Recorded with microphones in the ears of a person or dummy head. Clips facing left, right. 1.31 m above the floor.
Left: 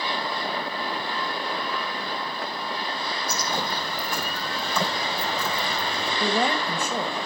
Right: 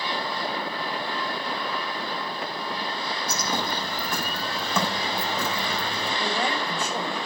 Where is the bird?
50° right (ahead or behind), 3 m.